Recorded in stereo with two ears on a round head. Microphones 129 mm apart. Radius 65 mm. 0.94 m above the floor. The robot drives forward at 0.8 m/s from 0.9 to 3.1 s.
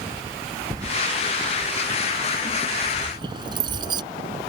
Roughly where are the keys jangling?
Right.